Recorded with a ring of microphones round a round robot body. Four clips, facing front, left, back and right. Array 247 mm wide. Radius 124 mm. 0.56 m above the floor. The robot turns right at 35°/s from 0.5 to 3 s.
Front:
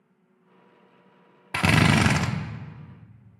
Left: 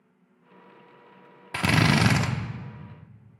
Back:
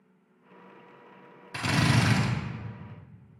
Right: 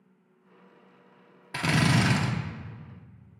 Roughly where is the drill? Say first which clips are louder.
Left 3 dB, front 6 dB; ahead.